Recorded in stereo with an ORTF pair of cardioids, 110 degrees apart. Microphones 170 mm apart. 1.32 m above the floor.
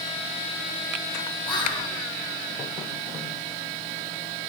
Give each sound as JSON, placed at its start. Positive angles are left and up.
{"t": 1.4, "sound": "whispering", "azimuth_deg": 30, "distance_m": 1.8}